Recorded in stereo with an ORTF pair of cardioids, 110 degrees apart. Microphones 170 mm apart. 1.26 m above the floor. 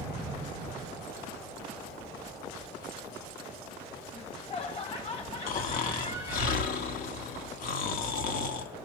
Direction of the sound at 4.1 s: 35° left.